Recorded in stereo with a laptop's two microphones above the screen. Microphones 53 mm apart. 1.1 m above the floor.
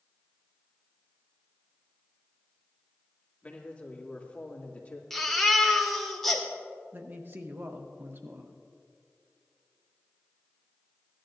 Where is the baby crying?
5° left (ahead or behind), 1.8 m.